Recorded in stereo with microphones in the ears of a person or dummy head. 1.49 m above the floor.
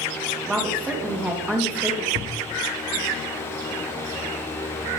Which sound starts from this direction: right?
A thud, at 2.1 s.